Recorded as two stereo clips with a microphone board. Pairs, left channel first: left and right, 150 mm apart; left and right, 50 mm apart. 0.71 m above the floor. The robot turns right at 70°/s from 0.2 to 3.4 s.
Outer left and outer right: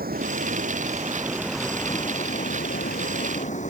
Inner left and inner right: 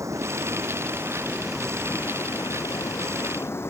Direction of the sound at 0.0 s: 100° right.